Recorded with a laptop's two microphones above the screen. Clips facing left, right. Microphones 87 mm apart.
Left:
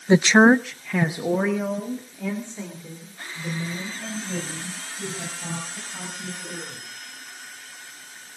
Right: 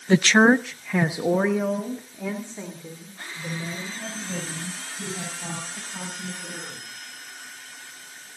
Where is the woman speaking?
20° left (ahead or behind), 0.5 m; by 7.0 s 15° right (ahead or behind), 7 m.